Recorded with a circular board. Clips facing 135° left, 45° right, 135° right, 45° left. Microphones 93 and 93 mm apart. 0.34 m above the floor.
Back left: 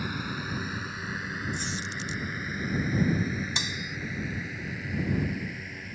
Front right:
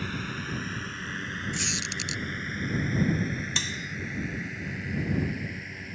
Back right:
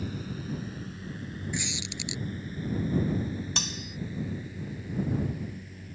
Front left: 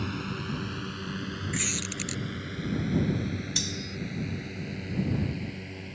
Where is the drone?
55° left; by 6.0 s 45° left.